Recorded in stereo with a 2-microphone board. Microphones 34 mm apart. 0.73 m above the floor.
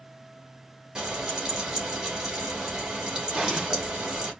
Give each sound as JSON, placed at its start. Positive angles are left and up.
{"t": 0.9, "sound": "frying", "side_deg": -25, "distance_m": 2.0}
{"t": 3.3, "sound": "an explosion", "side_deg": -20, "distance_m": 2.5}